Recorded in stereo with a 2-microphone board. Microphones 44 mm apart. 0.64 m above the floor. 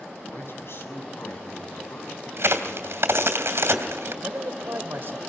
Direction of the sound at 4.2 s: 55° right (ahead or behind).